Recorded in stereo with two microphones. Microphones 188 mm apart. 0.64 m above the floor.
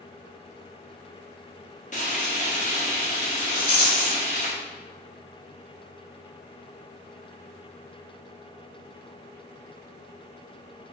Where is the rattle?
55° left (ahead or behind), 1.8 m.